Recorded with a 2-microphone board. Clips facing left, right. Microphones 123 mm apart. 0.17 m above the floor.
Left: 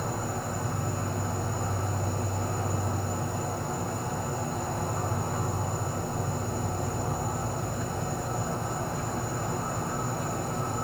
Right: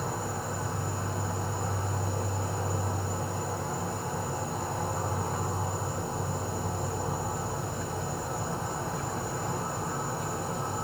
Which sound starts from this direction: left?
An insect, at 0.0 s.